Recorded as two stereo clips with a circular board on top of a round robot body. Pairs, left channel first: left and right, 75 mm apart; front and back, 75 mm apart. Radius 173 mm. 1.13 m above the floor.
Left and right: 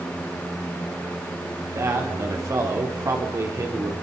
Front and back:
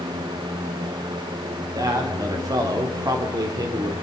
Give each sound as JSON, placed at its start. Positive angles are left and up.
{"t": 1.6, "sound": "a man speaking", "azimuth_deg": -140, "distance_m": 3.0}